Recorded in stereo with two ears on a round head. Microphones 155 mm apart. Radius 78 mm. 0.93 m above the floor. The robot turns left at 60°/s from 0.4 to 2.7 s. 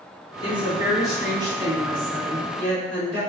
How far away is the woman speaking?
About 1.3 m.